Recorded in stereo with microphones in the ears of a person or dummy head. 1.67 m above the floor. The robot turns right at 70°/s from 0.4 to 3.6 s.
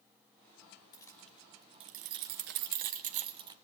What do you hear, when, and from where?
0.9 s keys jangling: 20° left (ahead or behind), 0.8 m; by 3.5 s 20° right (ahead or behind), 0.8 m